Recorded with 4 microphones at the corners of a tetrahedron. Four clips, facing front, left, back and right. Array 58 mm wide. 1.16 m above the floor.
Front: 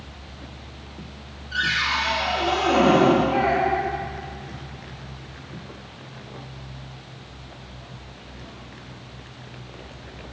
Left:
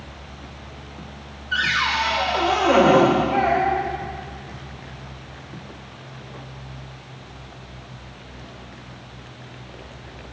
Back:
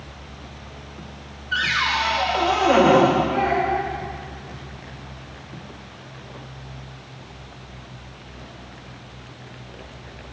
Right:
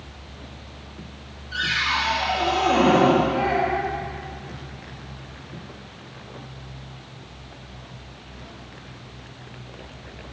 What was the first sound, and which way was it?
A cupboard door, 130° left.